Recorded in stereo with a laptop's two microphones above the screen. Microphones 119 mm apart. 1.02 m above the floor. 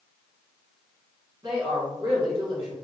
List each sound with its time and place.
1.4 s a woman speaking: 35° right (ahead or behind), 1.5 m